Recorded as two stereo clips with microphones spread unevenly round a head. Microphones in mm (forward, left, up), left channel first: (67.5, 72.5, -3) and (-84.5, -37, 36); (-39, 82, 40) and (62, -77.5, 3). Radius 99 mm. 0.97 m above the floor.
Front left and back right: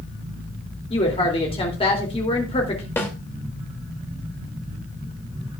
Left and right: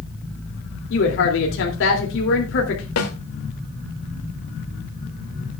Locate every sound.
0.9 s a woman speaking: 95° left, 2.5 m
3.0 s a snare drum: 115° left, 2.5 m